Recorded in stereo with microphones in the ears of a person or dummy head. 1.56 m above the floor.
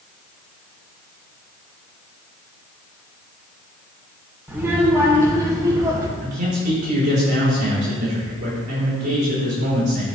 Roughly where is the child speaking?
Centre.